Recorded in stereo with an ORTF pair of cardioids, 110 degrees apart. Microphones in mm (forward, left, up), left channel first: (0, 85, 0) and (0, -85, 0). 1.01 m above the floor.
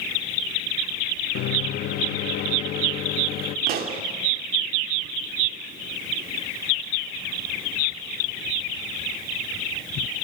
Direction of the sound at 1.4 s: 65° left.